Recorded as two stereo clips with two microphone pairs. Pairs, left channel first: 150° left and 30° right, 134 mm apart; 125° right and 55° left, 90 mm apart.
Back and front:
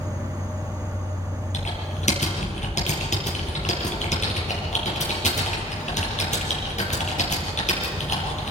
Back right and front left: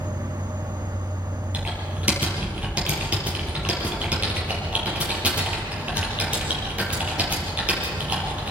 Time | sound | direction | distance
0.0 | an insect | 80° left | 1.2 m
1.5 | typing on a keyboard | 130° left | 5.5 m